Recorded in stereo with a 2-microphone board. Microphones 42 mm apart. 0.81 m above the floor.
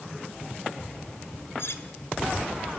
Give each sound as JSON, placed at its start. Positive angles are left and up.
{"t": 1.6, "sound": "cutlery clinking", "side_deg": 75, "distance_m": 1.9}